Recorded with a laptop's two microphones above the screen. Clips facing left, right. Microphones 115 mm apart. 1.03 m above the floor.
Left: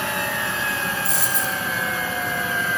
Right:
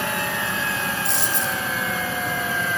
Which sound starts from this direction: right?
A dropped coin, at 1.1 s.